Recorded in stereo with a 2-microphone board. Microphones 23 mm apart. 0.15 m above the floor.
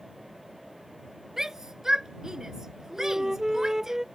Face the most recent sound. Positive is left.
turn(degrees=-20)  # may be behind; listen again after turning